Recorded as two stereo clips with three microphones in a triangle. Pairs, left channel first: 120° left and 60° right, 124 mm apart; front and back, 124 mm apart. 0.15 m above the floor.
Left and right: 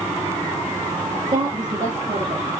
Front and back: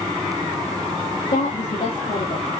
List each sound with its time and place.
1.3 s a woman speaking: 5° right, 3 m; by 2.5 s 10° right, 4 m